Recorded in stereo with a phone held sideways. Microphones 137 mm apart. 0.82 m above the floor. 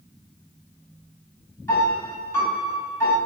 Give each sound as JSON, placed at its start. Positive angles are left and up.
{"t": 1.7, "sound": "a piano", "side_deg": 20, "distance_m": 1.4}